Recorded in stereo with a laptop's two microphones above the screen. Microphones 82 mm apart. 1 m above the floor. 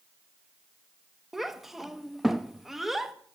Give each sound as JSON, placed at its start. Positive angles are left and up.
{"t": 1.3, "sound": "a child speaking", "side_deg": -5, "distance_m": 0.7}